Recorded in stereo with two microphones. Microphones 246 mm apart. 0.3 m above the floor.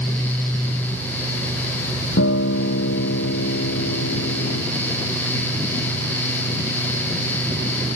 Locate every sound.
2.2 s a guitar: 80° left